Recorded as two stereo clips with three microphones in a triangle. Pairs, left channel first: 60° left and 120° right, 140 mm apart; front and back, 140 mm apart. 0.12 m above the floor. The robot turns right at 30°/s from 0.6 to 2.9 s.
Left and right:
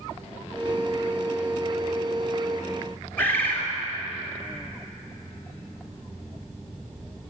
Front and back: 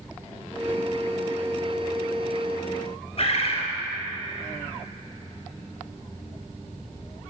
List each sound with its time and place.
3.2 s a bird: 10° right, 1.7 m